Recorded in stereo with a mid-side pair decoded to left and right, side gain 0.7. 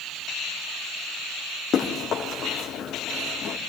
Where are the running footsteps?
40° left, 5.5 m.